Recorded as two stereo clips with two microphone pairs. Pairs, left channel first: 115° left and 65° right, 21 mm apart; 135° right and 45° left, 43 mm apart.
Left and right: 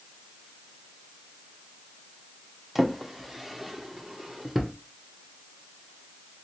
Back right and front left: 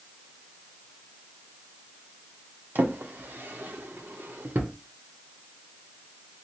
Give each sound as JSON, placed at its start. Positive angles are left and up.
{"t": 2.8, "sound": "a drawer", "azimuth_deg": 15, "distance_m": 0.6}